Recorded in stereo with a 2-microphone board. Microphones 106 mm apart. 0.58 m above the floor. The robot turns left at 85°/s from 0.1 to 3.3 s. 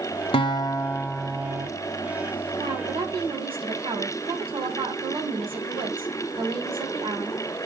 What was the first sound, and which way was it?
A guitar, 75° left.